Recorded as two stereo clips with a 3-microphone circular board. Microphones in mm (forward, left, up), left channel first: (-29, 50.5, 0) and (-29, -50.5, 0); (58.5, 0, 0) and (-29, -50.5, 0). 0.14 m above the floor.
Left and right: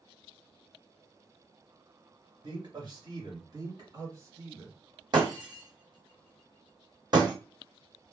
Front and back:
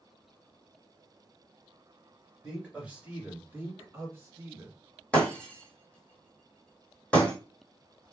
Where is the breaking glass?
45° right, 1.4 m.